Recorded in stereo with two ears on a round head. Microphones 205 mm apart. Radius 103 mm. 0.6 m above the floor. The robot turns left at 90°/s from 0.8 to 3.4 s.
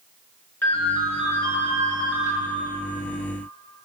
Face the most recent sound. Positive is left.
turn(degrees=135)